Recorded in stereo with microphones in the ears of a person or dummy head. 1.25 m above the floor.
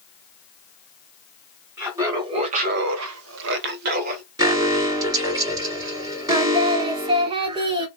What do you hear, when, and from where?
1.8 s laughter: 10° right (ahead or behind), 0.9 m; by 4.2 s 50° right (ahead or behind), 1.0 m
4.4 s an alarm: 20° right (ahead or behind), 1.4 m
6.3 s singing: 30° right (ahead or behind), 0.6 m